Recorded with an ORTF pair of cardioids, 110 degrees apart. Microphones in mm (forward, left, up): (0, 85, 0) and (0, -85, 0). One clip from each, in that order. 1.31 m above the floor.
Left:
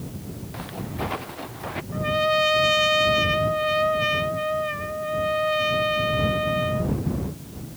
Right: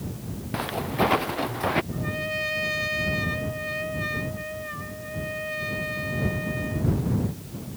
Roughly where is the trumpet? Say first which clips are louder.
Left 8 dB; ahead left.